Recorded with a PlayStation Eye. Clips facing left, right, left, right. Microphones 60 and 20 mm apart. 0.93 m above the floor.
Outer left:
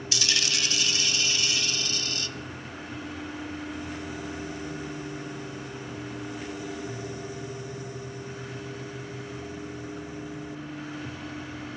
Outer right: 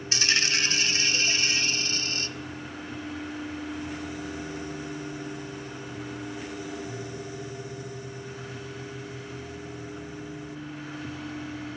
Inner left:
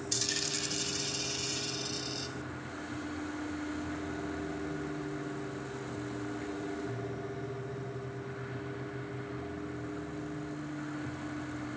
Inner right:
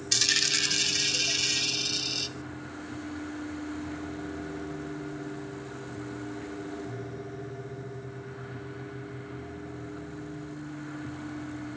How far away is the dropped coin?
About 0.5 m.